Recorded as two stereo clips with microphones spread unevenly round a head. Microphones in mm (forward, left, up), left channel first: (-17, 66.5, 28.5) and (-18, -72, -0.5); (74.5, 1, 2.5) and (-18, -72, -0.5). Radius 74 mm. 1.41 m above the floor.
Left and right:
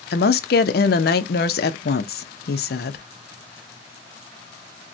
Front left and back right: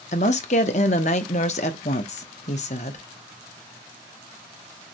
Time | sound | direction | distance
0.1 | a woman speaking | 70° left | 0.5 m